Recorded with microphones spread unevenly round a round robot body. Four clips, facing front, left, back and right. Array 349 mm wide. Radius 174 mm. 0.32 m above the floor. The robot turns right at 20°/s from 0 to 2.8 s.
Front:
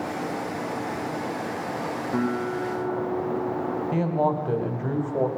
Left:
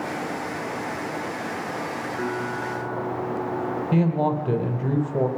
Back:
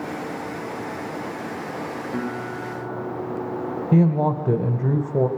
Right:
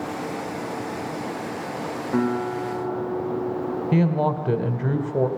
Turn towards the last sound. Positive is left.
turn(degrees=-175)